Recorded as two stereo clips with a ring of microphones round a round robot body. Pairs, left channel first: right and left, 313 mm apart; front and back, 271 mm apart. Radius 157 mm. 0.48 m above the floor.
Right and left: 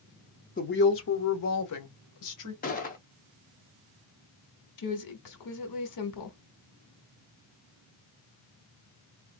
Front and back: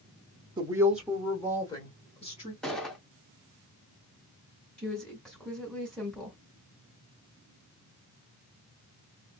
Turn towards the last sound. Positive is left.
turn(degrees=-85)